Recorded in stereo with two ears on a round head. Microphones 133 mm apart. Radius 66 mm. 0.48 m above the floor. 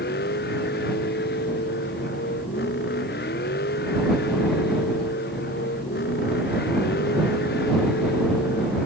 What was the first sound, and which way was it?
A vehicle, 70° left (ahead or behind).